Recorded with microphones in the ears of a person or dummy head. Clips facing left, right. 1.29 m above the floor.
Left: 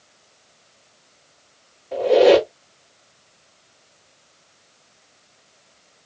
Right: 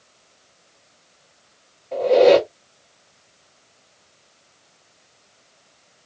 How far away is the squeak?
About 1.2 m.